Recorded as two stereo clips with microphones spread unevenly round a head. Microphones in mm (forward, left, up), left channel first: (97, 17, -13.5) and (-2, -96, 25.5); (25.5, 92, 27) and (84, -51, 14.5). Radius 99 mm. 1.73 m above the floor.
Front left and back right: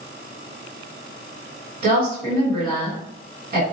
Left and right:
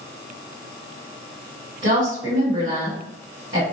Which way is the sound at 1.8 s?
115° right.